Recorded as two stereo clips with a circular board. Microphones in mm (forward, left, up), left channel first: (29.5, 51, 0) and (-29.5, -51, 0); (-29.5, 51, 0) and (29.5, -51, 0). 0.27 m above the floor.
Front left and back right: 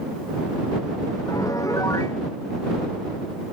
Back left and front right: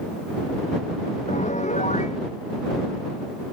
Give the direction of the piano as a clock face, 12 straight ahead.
8 o'clock.